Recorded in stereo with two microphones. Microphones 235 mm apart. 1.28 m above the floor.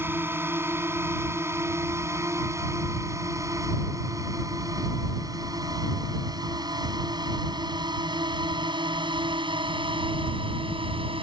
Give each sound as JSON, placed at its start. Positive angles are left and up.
{"t": 0.0, "sound": "a drone", "side_deg": -10}